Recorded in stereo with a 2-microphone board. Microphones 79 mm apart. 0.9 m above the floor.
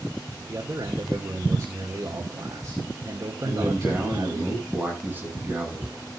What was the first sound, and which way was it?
A man speaking, 50° right (ahead or behind).